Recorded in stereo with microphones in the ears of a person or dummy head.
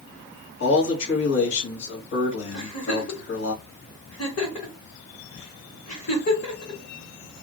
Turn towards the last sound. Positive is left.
turn(degrees=40)  # may be behind; listen again after turning